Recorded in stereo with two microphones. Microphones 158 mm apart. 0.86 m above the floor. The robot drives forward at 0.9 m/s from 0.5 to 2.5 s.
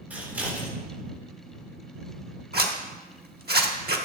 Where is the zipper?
75° right (ahead or behind), 1.2 m.